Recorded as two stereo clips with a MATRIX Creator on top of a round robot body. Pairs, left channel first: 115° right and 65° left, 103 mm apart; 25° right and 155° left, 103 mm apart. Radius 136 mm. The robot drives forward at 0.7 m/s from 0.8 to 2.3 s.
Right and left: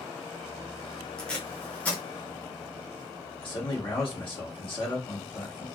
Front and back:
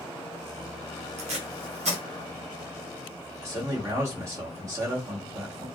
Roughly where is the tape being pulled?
Behind.